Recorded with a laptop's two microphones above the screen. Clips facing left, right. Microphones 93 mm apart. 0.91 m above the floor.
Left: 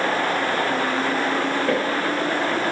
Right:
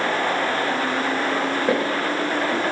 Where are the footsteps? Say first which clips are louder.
Even; 15° right (ahead or behind), 4 m.